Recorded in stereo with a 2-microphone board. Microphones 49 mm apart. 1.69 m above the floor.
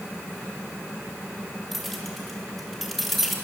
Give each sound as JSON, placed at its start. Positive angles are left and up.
{"t": 1.7, "sound": "keys jangling", "side_deg": 0, "distance_m": 3.0}